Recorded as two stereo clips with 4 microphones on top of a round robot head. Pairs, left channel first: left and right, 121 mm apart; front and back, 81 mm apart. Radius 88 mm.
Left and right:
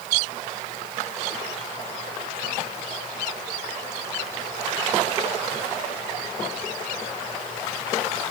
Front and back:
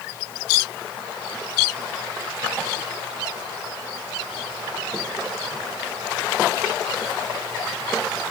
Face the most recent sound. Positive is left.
No sound to turn to.